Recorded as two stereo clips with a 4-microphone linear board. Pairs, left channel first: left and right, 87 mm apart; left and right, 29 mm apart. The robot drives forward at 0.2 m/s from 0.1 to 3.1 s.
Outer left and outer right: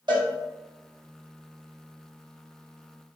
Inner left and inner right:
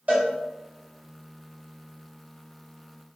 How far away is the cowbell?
About 1.2 m.